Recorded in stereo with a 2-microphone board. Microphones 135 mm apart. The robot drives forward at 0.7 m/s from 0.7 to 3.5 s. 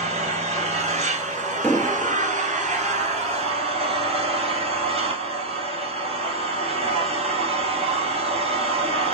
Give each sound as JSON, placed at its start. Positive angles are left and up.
{"t": 0.0, "sound": "an engine running", "side_deg": -50, "distance_m": 1.8}
{"t": 1.6, "sound": "an explosion", "side_deg": 15, "distance_m": 1.1}